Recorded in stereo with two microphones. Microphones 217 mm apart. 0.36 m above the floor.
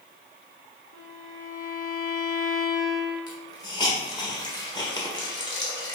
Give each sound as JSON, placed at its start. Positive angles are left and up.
{"t": 0.9, "sound": "a violin", "side_deg": 85, "distance_m": 1.9}
{"t": 3.3, "sound": "a hiss", "side_deg": 20, "distance_m": 1.4}